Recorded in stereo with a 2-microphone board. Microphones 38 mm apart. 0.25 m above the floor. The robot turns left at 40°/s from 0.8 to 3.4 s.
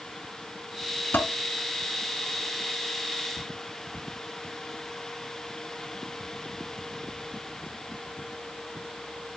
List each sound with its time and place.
1.1 s dishes clattering: 70° left (ahead or behind), 2 m